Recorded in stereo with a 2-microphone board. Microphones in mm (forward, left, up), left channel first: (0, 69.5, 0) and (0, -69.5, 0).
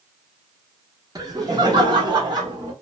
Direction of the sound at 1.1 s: 25° right (ahead or behind).